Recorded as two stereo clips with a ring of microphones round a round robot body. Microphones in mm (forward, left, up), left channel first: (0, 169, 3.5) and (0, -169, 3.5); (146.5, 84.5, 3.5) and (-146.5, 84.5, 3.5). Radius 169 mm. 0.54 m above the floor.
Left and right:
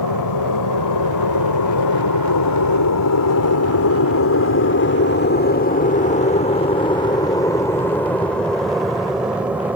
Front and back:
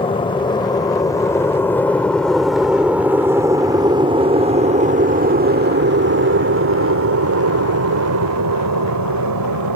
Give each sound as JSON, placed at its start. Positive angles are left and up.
{"t": 0.0, "sound": "an aircraft", "azimuth_deg": 70}